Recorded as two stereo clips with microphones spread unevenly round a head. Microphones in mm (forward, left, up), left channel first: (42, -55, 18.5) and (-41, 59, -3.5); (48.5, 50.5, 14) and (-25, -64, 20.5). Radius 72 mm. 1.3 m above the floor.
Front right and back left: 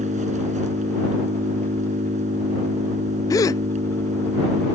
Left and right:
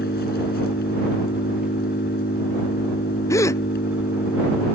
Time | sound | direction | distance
0.0 | an engine running | 85° left | ?
3.3 | a gasp | 10° left | ?